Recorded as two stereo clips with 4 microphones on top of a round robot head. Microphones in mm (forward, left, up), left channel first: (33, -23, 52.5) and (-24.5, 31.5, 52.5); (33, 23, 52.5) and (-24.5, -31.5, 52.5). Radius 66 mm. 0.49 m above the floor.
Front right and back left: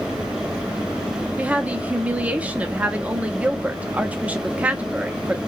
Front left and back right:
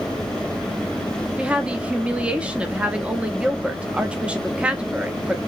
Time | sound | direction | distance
1.4 | a woman speaking | 170° left | 0.9 m